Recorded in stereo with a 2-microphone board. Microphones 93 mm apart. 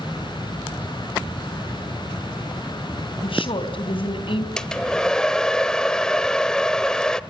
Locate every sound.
3.2 s a woman speaking: 75° left (ahead or behind), 3.5 m
4.6 s a hair dryer: 5° left (ahead or behind), 1.0 m